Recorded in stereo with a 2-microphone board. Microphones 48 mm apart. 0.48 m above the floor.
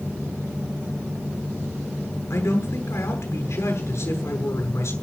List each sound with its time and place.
2.3 s a man speaking: 75° left (ahead or behind), 7.5 m